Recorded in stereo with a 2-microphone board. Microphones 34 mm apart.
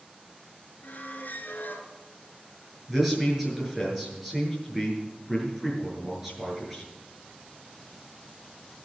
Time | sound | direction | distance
0.8 | a squeak | 65° left (ahead or behind) | 1.9 m
2.9 | a man speaking | 10° right (ahead or behind) | 7 m